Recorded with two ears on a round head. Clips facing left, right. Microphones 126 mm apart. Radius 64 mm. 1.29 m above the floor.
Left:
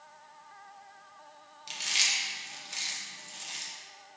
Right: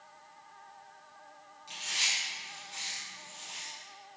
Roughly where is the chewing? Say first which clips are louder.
Left 2 dB; left.